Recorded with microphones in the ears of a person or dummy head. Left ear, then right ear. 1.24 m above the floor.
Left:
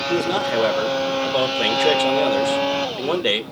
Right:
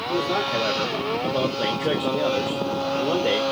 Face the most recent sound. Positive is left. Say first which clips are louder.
# left 2 dB
turn(degrees=75)  # may be behind; listen again after turning